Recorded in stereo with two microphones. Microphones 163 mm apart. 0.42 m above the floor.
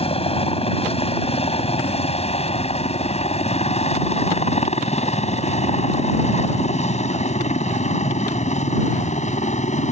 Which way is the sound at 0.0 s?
35° left (ahead or behind).